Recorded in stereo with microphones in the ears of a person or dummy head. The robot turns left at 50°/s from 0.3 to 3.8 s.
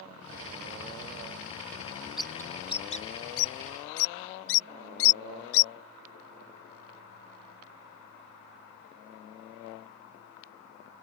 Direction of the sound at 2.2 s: 5° right (ahead or behind).